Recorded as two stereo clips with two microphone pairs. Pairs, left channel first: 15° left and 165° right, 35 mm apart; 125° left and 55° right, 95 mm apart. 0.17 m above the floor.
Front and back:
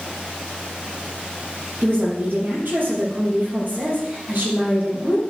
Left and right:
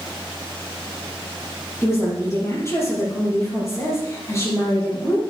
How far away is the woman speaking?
About 4.5 m.